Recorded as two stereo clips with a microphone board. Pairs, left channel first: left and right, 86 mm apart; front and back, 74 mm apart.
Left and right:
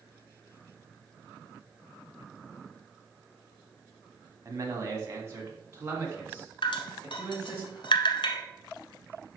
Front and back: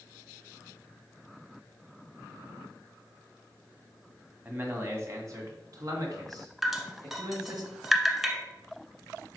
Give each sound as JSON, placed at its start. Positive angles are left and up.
{"t": 4.5, "sound": "a man speaking", "azimuth_deg": -125, "distance_m": 1.7}
{"t": 6.6, "sound": "dripping", "azimuth_deg": 95, "distance_m": 1.1}